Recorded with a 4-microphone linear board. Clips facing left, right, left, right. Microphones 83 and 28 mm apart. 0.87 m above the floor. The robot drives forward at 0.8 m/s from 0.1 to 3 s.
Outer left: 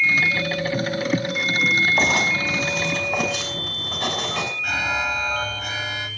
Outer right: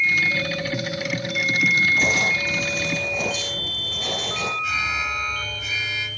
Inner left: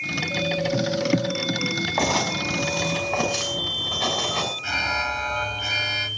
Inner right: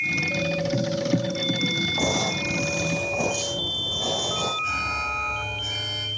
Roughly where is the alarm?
Left.